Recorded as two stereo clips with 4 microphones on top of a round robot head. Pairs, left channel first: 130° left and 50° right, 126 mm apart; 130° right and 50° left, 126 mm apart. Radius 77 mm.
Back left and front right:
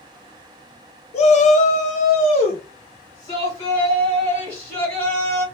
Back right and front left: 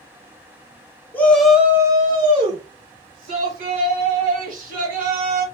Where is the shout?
155° left, 0.6 m; by 5.5 s 55° left, 2 m.